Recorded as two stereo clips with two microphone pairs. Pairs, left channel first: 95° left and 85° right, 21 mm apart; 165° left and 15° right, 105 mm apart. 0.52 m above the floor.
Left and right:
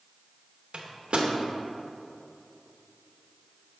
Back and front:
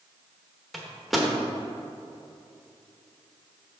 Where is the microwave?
105° right, 0.9 m.